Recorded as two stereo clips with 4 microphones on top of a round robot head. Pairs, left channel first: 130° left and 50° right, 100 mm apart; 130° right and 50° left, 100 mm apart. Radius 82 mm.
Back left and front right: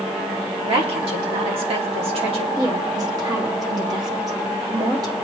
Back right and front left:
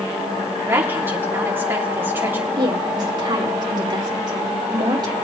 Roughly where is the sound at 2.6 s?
Ahead.